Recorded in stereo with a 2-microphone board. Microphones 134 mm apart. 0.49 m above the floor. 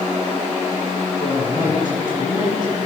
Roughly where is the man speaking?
Left.